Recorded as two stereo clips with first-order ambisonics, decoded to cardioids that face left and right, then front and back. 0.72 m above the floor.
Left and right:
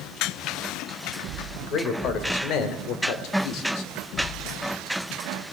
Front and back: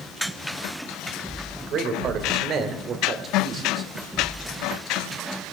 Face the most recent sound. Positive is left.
turn(degrees=115)